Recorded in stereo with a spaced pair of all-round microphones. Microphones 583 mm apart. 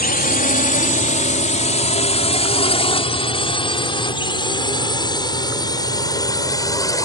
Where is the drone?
15° left (ahead or behind); by 7.1 s 5° left (ahead or behind).